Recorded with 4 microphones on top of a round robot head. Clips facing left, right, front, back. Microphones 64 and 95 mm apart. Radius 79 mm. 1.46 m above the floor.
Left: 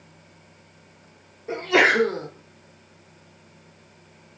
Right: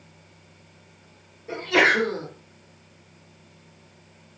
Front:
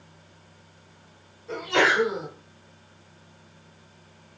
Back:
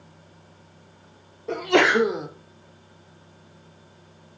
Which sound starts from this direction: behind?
A sneeze, at 1.5 s.